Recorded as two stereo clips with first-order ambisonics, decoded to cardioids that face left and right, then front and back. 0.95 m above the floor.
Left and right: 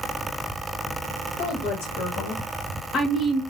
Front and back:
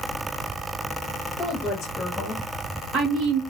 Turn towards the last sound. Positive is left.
turn(degrees=175)